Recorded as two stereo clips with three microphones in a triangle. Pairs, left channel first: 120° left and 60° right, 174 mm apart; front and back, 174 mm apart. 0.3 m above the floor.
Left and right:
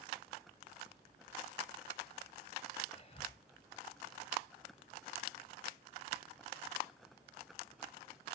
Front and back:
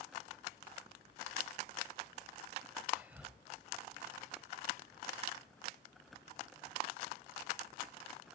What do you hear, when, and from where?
2.9 s whispering: 105° left, 1.3 m